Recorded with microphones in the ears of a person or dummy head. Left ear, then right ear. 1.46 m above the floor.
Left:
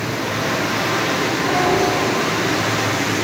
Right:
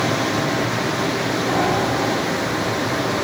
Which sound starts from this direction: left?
A piano, at 1.5 s.